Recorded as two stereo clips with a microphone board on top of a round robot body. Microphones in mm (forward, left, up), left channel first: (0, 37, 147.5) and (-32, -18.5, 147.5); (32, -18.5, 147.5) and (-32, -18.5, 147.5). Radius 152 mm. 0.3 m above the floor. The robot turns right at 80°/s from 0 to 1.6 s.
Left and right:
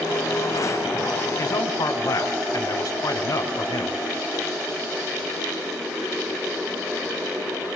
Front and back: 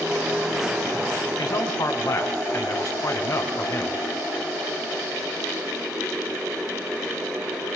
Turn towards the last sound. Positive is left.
turn(degrees=35)